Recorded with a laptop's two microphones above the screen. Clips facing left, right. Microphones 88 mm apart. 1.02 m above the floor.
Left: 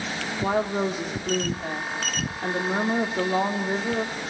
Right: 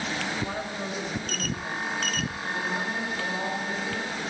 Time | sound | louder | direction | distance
0.4 | a woman speaking | left 8 dB | 70° left (ahead or behind) | 3 m